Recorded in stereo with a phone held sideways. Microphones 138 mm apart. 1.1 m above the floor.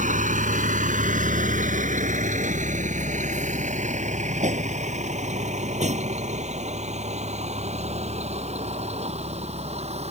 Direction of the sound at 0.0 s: 80° right.